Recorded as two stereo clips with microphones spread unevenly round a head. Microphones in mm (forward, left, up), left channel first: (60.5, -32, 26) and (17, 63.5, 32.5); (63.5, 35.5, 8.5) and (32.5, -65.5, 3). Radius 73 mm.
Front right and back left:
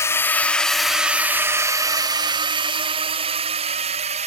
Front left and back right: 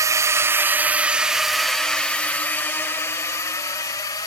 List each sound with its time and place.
0.0 s a drone: 95° right; by 4.3 s 135° left